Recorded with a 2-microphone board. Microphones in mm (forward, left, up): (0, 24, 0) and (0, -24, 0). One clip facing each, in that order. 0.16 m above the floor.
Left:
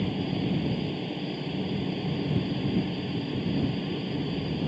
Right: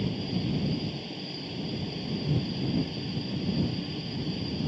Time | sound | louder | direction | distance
0.0 | a helicopter | left 2 dB | 15° left (ahead or behind) | ?